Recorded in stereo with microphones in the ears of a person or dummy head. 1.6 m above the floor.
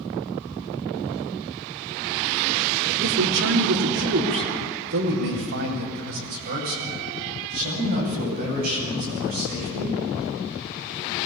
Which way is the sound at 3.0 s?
65° right (ahead or behind).